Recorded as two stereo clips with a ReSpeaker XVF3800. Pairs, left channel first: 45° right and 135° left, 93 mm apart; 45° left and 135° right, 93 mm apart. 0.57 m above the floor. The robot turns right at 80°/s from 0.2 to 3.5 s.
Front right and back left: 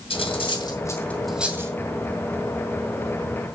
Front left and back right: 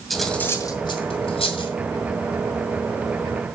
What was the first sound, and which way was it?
Cutlery clinking, 45° right.